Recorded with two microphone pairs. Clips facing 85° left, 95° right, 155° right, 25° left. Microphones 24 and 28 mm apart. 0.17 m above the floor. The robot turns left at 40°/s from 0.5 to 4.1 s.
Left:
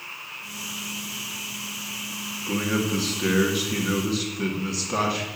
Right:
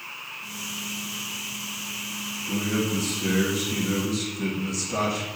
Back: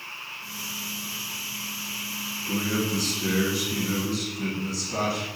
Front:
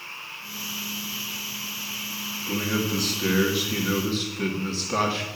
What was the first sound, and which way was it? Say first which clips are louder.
A man speaking: left 2 dB, front 1 dB; 115° left.